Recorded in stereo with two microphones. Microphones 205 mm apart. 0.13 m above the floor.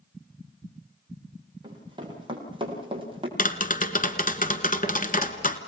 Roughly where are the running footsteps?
Right.